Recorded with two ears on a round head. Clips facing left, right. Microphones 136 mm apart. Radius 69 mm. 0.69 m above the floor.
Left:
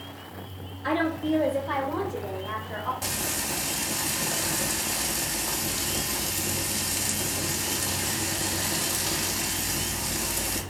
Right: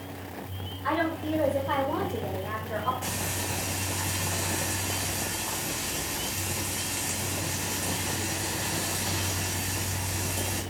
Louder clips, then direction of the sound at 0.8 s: Left 2 dB; 40° left (ahead or behind).